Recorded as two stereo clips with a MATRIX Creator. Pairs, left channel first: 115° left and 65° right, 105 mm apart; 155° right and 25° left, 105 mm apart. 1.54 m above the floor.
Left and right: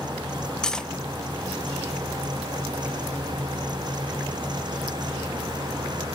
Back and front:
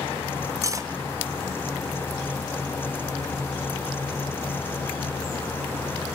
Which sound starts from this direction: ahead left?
Cutlery clinking, at 0.6 s.